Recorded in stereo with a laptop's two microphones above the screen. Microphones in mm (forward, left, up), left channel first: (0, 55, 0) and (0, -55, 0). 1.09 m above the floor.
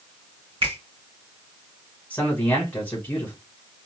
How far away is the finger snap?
About 2.5 m.